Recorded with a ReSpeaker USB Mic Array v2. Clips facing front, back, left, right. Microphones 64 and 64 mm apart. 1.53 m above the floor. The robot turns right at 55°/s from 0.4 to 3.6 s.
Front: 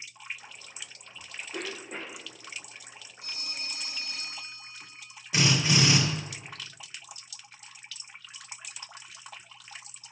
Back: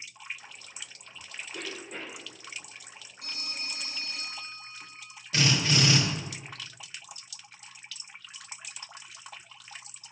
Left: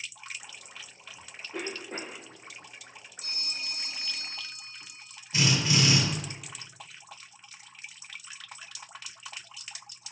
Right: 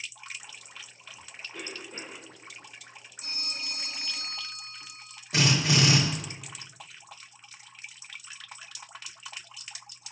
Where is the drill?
75° right, 1.5 m.